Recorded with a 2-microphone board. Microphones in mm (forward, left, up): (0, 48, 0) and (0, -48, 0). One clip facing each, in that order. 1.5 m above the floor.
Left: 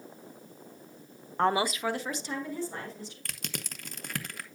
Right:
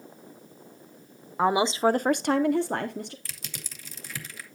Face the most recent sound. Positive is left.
turn(degrees=60)  # may be behind; listen again after turning